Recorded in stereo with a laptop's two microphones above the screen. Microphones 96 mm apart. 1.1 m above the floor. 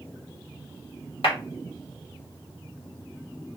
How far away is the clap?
About 1.6 m.